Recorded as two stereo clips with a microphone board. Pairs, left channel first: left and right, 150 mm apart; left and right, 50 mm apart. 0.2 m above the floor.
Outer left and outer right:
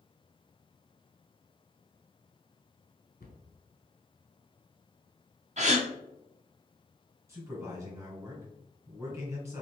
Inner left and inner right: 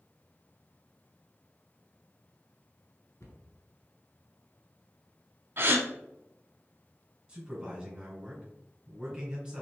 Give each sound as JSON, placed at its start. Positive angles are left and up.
{"t": 3.2, "sound": "a cupboard door", "side_deg": 75, "distance_m": 0.8}
{"t": 5.6, "sound": "a gasp", "side_deg": -50, "distance_m": 0.7}
{"t": 7.3, "sound": "a man speaking", "side_deg": -20, "distance_m": 1.9}